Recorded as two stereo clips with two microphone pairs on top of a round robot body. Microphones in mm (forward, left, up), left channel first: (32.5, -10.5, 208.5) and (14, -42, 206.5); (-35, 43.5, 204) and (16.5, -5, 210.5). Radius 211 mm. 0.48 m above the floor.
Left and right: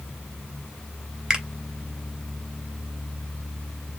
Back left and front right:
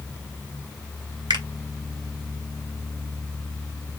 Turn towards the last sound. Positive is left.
turn(degrees=-45)